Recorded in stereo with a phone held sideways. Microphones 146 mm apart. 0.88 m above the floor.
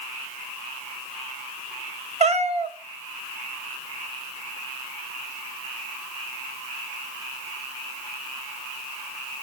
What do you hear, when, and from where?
2.2 s a cat meowing: 55° right (ahead or behind), 0.8 m